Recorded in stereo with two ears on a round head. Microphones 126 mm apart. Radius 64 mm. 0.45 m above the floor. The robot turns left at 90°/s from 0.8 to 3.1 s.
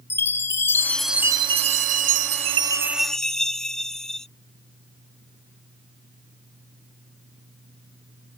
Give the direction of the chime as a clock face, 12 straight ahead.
11 o'clock.